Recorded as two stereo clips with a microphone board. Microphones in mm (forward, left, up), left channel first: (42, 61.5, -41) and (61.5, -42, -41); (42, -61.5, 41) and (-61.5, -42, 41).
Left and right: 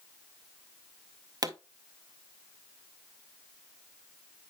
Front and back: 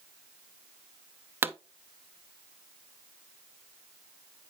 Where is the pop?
125° right, 0.6 m.